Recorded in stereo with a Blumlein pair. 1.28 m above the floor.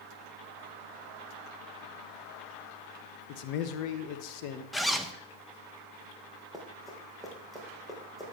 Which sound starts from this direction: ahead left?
A man speaking, at 3.3 s.